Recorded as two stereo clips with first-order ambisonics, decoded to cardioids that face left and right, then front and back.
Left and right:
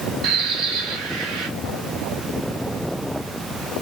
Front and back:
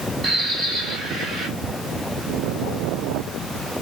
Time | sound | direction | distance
0.2 | a bird | 115° right | 1.6 m